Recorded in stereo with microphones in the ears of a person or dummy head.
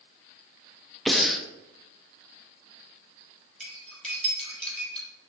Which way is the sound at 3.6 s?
Centre (ahead or behind).